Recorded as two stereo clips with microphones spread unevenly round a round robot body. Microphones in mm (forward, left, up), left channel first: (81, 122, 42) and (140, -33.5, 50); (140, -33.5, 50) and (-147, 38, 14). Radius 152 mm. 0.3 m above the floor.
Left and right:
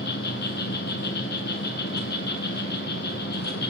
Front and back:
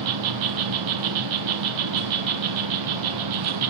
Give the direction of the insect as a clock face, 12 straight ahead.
7 o'clock.